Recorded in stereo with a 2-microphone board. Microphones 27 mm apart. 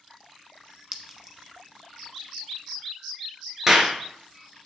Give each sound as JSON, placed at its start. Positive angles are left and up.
{"t": 0.9, "sound": "a clink", "side_deg": -20, "distance_m": 0.9}
{"t": 3.7, "sound": "a clap", "side_deg": -20, "distance_m": 1.6}